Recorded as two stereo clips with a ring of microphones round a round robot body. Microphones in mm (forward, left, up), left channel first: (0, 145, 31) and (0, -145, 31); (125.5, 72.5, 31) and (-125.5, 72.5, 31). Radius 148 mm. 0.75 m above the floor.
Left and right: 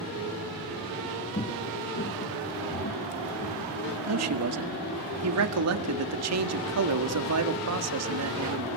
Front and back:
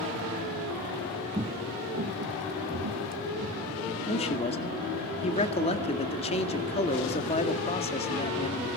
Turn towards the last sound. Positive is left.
turn(degrees=-65)